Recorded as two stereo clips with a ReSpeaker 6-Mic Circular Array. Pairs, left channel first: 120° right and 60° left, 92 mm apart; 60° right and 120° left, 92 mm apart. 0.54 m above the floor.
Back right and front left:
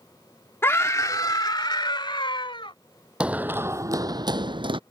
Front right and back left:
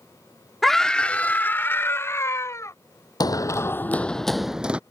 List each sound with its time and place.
0.6 s a scream: 145° right; by 2.7 s 115° right
3.2 s running footsteps: 20° right; by 4.8 s 45° left